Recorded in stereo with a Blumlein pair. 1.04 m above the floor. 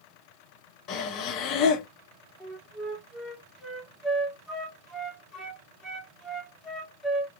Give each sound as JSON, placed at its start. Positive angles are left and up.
{"t": 0.9, "sound": "breathing", "azimuth_deg": 35, "distance_m": 0.8}
{"t": 2.4, "sound": "a flute", "azimuth_deg": 10, "distance_m": 1.0}